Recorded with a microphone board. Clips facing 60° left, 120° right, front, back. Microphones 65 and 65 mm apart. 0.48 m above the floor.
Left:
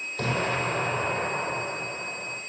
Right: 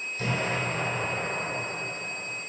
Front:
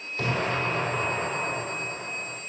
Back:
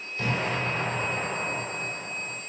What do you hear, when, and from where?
0.2 s an explosion: 40° left, 5 m